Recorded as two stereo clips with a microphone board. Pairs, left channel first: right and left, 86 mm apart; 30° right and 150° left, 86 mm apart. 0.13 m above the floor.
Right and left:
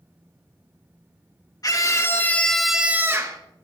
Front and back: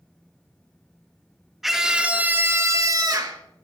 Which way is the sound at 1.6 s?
125° right.